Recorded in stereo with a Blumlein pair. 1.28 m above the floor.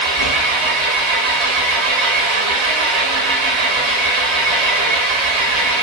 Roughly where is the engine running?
Ahead right.